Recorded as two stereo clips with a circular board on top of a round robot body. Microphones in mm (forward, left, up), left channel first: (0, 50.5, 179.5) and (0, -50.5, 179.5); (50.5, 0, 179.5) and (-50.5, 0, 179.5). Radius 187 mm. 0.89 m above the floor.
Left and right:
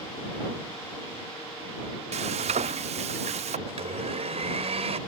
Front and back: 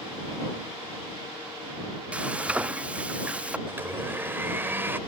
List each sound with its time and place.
2.1 s frying: 100° right
3.7 s a blender: 110° right